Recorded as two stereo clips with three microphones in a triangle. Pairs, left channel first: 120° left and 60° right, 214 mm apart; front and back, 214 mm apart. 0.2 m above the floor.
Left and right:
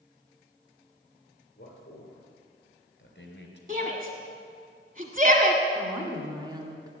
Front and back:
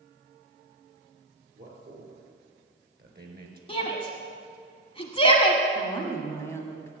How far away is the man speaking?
About 4.5 m.